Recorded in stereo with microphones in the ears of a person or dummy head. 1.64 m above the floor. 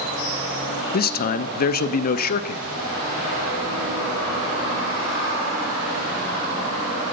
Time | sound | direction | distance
0.9 | a man speaking | 40° left (ahead or behind) | 0.6 m